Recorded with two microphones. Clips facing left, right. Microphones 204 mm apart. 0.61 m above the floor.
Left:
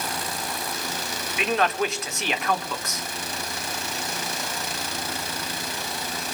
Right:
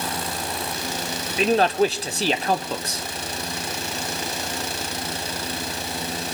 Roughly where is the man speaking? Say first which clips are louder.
Right 6 dB; right.